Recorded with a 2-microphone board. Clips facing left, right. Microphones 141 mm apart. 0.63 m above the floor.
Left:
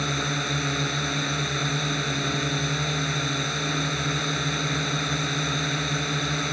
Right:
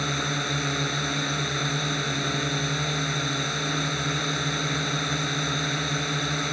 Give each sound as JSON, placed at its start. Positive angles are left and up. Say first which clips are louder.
{"t": 0.0, "sound": "a drone", "louder": "left 1 dB", "side_deg": 0}